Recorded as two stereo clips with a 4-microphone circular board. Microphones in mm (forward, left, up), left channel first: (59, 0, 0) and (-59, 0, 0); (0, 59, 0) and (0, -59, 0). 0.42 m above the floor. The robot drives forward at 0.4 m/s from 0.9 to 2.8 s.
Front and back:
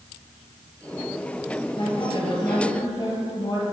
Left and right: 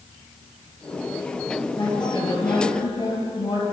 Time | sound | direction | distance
1.8 | a woman speaking | 45° left | 2.5 m